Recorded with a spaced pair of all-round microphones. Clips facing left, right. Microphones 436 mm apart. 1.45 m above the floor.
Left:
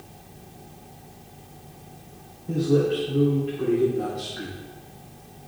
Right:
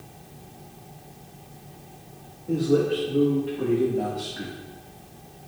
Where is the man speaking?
75° right (ahead or behind), 2.5 m; by 4.6 s 60° right (ahead or behind), 1.6 m.